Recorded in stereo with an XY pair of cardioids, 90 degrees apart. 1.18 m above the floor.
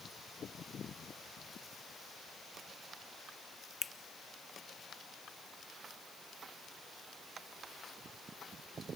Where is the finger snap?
20° left, 0.9 m.